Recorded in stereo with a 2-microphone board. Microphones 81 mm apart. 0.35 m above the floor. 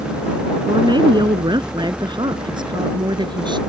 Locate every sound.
0.6 s a woman speaking: 70° right (ahead or behind); by 3.6 s 80° right